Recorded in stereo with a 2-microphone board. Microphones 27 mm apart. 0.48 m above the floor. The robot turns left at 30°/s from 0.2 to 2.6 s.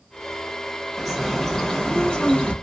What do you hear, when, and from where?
1.0 s a bird: 175° right, 0.8 m; by 2.5 s 140° left, 0.8 m